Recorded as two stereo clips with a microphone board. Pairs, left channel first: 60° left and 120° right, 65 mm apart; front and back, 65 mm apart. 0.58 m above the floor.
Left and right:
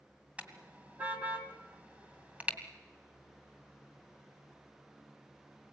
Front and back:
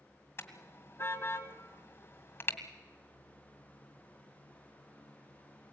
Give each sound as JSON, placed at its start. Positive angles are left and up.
{"t": 0.4, "sound": "a car horn", "azimuth_deg": -55, "distance_m": 2.0}